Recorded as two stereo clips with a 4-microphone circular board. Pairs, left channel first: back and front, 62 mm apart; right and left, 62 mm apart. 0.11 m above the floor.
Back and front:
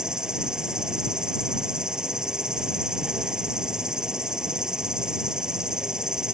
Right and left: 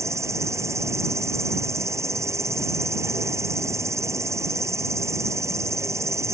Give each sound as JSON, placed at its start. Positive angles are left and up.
{"t": 0.0, "sound": "an insect", "azimuth_deg": 75}